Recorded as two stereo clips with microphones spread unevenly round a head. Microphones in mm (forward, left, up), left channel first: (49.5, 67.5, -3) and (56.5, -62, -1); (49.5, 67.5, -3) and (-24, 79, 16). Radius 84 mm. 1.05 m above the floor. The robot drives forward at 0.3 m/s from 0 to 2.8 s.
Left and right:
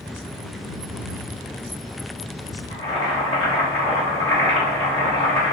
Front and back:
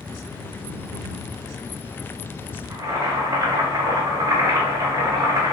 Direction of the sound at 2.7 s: 145° left.